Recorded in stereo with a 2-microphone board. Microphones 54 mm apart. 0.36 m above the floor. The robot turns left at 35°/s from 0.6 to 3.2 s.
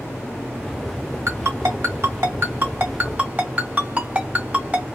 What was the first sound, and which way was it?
A ringtone, 55° right (ahead or behind).